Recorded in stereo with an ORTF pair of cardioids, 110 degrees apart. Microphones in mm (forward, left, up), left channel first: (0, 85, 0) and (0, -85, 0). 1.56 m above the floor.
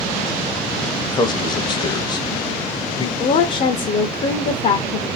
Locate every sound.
1.0 s a man speaking: 25° left, 0.7 m
3.2 s a woman speaking: 45° left, 0.6 m